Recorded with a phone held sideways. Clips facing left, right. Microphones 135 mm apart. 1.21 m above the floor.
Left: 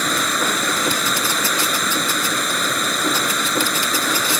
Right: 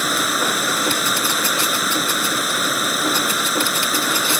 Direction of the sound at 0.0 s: 5° right (ahead or behind).